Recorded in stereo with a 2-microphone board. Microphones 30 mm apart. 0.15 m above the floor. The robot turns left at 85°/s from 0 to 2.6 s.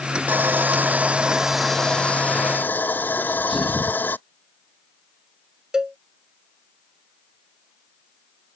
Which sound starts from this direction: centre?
A sneeze, at 3.2 s.